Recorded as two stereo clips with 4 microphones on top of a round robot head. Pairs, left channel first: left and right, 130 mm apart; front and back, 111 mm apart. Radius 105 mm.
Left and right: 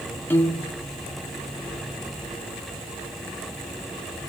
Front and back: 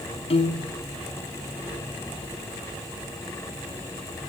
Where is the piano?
20° left, 1.7 m.